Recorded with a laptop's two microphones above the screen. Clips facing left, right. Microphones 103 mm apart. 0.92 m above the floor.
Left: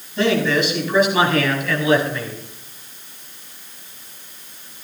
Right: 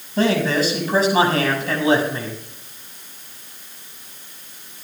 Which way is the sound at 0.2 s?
40° right (ahead or behind).